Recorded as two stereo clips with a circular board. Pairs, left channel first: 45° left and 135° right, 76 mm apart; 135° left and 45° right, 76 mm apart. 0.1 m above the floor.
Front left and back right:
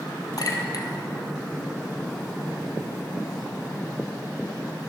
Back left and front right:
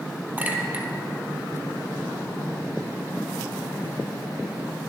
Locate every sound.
0.4 s a clink: 20° left, 1.8 m